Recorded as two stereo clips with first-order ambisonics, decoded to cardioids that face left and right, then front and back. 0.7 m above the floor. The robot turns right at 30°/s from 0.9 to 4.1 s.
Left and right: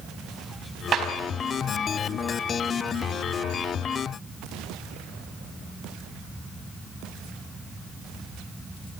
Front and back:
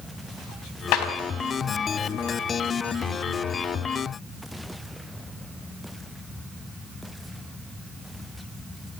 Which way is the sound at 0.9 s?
30° right.